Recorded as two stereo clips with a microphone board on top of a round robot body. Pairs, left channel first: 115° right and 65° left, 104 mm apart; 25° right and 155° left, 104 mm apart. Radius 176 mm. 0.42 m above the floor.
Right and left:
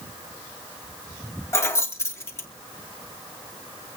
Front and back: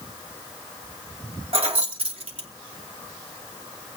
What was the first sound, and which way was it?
Keys jangling, 175° right.